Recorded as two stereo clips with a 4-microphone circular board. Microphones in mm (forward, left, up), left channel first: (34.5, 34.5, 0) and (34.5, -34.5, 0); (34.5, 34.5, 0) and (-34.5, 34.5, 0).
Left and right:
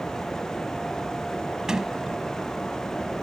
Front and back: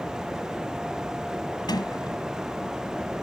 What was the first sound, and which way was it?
A sliding door, 10° right.